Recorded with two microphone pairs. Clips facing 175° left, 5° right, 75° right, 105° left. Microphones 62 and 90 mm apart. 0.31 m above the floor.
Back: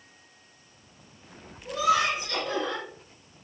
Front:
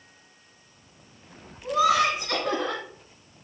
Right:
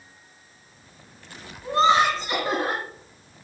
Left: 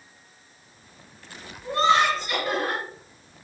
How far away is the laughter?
About 2.5 m.